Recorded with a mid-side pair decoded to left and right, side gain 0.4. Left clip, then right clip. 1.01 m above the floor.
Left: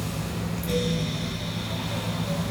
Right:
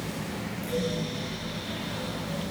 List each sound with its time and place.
0.0 s a fan: 70° left, 5 m